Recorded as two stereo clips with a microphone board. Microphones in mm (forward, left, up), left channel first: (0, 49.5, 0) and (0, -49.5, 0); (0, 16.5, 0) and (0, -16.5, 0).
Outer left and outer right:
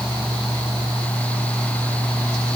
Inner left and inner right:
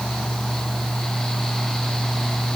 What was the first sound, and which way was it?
Only background noise.